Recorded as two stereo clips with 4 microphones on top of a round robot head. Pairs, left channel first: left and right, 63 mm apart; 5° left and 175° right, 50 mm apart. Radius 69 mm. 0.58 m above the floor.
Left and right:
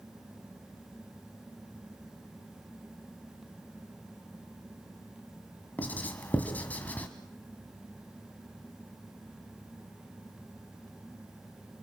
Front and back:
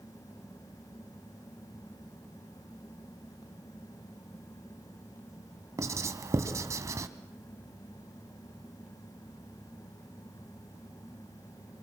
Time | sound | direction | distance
5.8 | writing | 160° left | 1.8 m